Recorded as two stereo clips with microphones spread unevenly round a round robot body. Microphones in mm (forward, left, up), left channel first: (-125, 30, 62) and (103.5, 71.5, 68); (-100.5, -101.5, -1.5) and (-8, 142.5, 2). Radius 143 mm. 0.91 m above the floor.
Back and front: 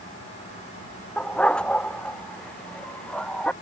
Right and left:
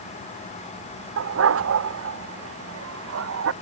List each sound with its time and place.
1.2 s a dog barking: 105° left